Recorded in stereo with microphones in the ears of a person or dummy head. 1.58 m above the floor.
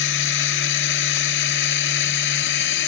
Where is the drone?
60° left (ahead or behind); by 2.9 s 55° left (ahead or behind).